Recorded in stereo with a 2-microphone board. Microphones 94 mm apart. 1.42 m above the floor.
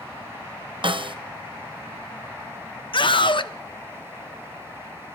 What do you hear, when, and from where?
0.8 s a snare drum: 65° right (ahead or behind), 0.7 m
2.9 s a scream: 60° left (ahead or behind), 0.6 m